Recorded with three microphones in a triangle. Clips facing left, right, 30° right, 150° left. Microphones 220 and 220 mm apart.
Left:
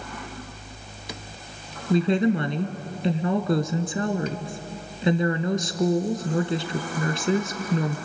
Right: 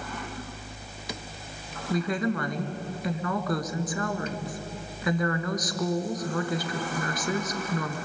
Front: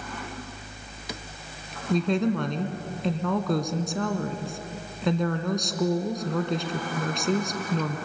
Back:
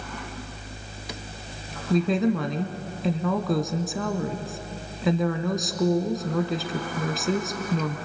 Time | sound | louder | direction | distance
1.9 | a woman speaking | left 7 dB, back 2 dB | 65° left | 1.6 m